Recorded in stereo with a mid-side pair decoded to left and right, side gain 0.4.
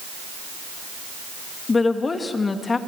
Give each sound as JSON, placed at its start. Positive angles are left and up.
{"t": 1.7, "sound": "a woman speaking", "azimuth_deg": 35, "distance_m": 2.5}